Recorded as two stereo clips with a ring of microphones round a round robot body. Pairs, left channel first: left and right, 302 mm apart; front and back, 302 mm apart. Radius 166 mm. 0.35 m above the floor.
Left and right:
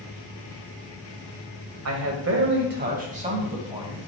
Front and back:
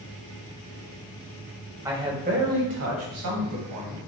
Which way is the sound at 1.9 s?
100° right.